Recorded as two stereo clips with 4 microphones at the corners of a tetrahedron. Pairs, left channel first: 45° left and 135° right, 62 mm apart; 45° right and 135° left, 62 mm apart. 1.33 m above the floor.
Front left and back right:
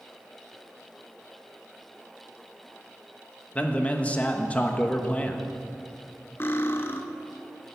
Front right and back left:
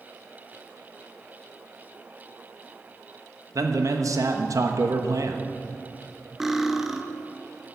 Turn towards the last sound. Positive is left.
turn(degrees=50)